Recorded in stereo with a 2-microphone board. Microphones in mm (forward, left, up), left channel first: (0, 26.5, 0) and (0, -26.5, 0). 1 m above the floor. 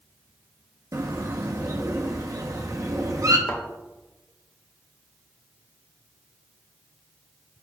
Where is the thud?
75° left (ahead or behind), 1.9 m.